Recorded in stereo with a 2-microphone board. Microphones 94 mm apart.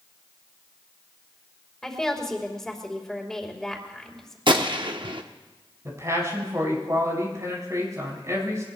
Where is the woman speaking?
5° left (ahead or behind), 2.5 m.